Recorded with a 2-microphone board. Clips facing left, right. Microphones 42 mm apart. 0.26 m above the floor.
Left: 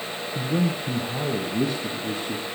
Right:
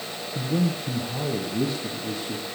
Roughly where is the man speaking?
Centre.